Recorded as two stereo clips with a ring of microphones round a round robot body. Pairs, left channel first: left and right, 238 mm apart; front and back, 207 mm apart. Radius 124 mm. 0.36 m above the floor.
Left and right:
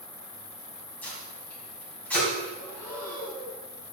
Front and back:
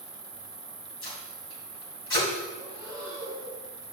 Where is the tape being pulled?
5° left, 3 m.